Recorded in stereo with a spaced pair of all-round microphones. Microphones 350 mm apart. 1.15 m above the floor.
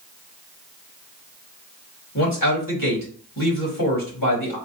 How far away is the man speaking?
About 2.0 m.